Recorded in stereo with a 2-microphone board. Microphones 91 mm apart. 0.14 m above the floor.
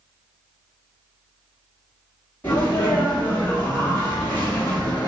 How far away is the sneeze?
About 1.2 m.